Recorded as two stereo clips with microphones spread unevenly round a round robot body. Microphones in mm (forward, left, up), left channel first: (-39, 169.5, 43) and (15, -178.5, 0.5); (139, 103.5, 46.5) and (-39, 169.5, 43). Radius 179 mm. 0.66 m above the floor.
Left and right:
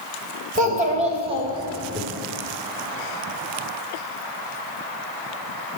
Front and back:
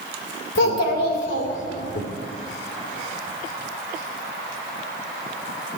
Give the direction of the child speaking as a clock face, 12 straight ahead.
12 o'clock.